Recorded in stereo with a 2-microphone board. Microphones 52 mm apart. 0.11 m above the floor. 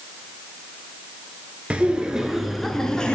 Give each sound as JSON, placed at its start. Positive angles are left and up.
{"t": 1.7, "sound": "laughter", "side_deg": -20, "distance_m": 1.5}